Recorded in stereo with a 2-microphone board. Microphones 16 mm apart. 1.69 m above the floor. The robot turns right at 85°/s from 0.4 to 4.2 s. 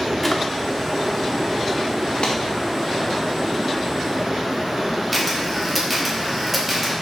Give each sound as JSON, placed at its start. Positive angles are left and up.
{"t": 0.2, "sound": "a drawer", "side_deg": 10, "distance_m": 1.3}
{"t": 2.2, "sound": "a clap", "side_deg": 70, "distance_m": 1.7}
{"t": 5.1, "sound": "a camera shutter", "side_deg": -10, "distance_m": 2.0}